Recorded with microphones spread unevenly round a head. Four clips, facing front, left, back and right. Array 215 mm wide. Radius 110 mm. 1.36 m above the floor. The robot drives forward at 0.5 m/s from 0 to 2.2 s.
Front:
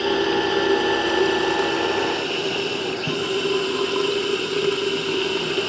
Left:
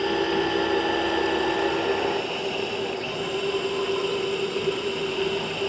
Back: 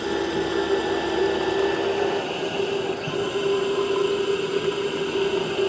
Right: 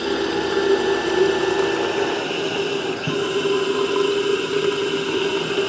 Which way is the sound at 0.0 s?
50° right.